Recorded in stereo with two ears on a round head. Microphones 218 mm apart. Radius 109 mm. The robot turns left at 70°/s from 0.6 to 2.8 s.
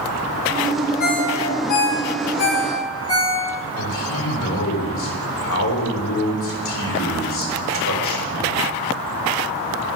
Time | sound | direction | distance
1.0 | a ringtone | 35° left (ahead or behind) | 3.5 m
3.8 | a man speaking | 55° left (ahead or behind) | 3 m